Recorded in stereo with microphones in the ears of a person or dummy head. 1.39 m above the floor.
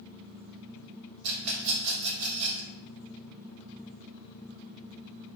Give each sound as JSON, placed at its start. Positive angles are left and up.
{"t": 1.2, "sound": "a rattle", "side_deg": -80, "distance_m": 1.3}